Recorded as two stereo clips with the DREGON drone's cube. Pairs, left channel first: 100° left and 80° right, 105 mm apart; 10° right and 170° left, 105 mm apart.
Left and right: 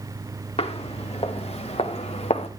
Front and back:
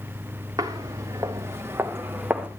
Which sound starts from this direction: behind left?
Footsteps, at 0.6 s.